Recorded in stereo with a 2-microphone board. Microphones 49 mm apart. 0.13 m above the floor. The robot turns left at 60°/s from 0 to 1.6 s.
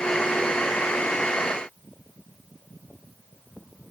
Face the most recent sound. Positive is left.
No sound to turn to.